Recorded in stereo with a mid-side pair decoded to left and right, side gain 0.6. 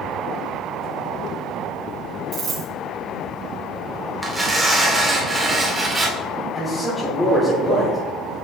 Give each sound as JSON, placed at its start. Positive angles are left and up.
{"t": 2.3, "sound": "a dropped coin", "azimuth_deg": -30, "distance_m": 3.0}
{"t": 4.2, "sound": "tearing paper", "azimuth_deg": -10, "distance_m": 2.5}
{"t": 6.5, "sound": "a man speaking", "azimuth_deg": 15, "distance_m": 2.5}